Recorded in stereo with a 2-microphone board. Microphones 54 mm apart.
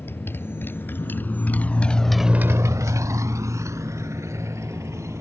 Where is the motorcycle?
40° left (ahead or behind); by 5.2 s 55° right (ahead or behind).